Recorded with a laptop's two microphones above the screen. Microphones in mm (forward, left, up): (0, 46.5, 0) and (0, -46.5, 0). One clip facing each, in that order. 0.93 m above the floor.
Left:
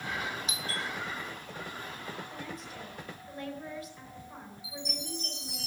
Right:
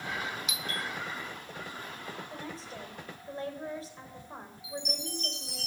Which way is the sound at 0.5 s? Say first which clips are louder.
Even; 35° left (ahead or behind).